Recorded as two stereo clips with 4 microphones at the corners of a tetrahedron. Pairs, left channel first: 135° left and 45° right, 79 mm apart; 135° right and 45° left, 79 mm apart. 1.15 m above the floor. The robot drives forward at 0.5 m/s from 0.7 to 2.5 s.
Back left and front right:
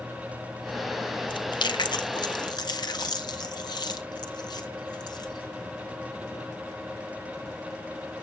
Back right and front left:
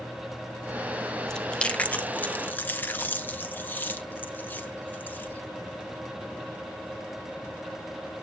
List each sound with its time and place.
1.3 s chewing: 145° left, 0.7 m; by 5.4 s 160° left, 1.2 m